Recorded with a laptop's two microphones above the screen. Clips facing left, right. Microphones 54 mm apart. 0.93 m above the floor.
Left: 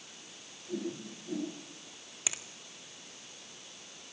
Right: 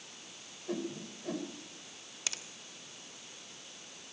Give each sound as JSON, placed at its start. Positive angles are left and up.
{"t": 0.7, "sound": "a whoosh", "side_deg": -80, "distance_m": 5.0}
{"t": 2.3, "sound": "a finger snap", "side_deg": 15, "distance_m": 1.3}